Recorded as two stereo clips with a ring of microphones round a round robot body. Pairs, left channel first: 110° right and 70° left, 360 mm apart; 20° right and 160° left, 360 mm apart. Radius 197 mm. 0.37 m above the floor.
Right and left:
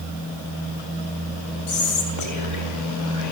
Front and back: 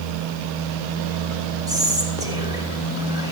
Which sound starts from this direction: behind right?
Whispering, at 1.7 s.